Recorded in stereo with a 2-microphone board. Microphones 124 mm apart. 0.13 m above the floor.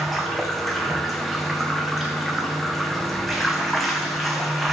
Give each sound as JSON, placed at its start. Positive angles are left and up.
{"t": 0.0, "sound": "running water", "side_deg": 0, "distance_m": 0.9}